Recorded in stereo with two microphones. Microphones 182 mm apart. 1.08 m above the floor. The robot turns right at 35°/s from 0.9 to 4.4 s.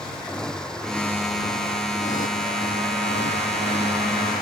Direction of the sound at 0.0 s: 5° left.